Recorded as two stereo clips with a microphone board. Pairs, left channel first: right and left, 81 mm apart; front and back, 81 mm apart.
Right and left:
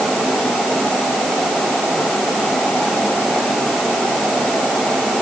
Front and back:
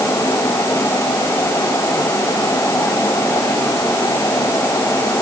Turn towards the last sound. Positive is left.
No sound to turn to.